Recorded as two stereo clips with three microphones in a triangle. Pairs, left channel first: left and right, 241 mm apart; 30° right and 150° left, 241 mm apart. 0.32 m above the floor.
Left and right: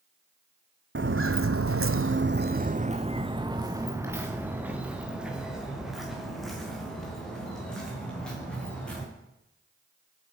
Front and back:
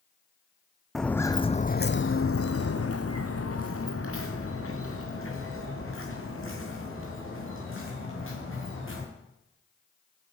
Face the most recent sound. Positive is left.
turn(degrees=5)